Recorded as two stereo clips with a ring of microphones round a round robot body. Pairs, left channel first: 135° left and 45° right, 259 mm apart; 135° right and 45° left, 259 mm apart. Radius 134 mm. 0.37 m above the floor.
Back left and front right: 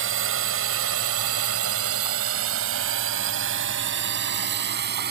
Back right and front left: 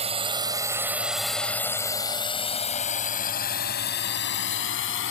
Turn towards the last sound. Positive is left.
turn(degrees=-95)